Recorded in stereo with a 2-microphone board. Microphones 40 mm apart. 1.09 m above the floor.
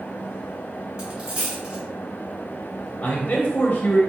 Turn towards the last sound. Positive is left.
turn(degrees=35)  # may be behind; listen again after turning